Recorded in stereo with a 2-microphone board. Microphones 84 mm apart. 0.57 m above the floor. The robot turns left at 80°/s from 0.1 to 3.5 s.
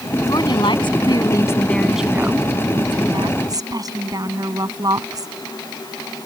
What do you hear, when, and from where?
0.3 s a woman speaking: 130° left; by 5.3 s 130° right